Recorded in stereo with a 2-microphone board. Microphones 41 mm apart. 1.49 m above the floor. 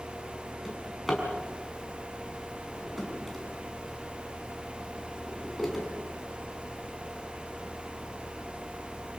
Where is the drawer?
5° left (ahead or behind), 6 m.